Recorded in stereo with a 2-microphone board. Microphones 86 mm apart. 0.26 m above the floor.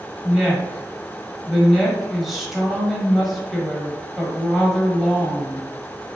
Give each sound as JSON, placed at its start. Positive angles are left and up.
{"t": 0.2, "sound": "a woman speaking", "side_deg": 0, "distance_m": 0.9}